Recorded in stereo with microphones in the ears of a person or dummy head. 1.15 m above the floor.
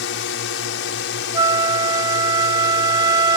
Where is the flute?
20° right (ahead or behind).